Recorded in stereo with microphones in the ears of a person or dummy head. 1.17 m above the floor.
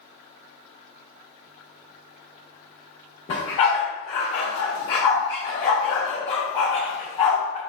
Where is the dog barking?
25° left (ahead or behind), 0.9 m.